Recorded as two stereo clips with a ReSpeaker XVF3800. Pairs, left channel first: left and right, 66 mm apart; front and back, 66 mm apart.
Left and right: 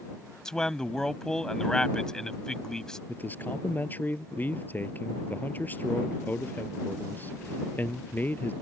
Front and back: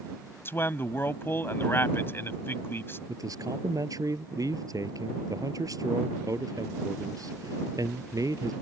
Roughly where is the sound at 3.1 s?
Behind left.